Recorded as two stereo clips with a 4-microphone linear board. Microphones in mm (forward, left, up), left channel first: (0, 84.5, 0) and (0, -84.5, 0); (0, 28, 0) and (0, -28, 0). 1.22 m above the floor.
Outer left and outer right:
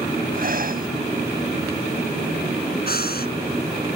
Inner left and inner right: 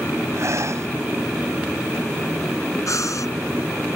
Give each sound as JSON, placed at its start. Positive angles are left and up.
{"t": 0.3, "sound": "breathing", "side_deg": -60}
{"t": 2.9, "sound": "breathing", "side_deg": 65}